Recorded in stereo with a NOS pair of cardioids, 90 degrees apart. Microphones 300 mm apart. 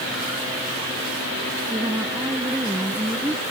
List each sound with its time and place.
1.7 s a woman speaking: 10° right